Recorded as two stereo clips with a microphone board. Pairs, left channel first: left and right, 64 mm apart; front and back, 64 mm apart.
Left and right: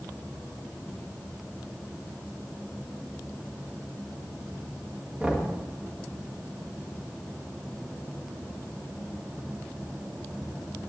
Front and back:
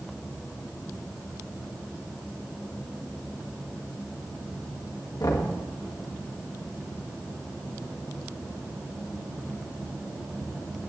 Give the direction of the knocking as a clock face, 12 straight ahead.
1 o'clock.